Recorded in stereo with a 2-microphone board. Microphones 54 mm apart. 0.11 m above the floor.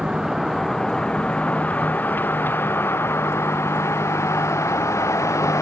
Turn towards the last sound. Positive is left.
turn(degrees=65)  # may be behind; listen again after turning